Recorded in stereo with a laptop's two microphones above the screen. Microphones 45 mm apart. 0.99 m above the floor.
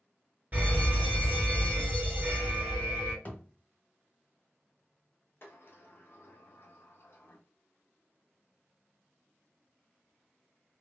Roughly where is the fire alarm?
Right.